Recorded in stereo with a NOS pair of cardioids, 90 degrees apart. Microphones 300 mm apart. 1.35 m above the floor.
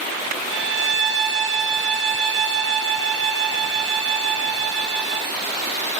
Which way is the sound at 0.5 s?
45° right.